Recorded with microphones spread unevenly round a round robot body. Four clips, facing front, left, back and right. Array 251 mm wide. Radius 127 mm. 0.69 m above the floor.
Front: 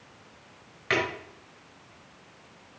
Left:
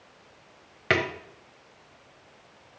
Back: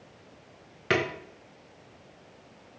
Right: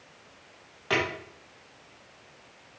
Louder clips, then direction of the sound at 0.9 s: Left 3 dB, back 1 dB; 115° left.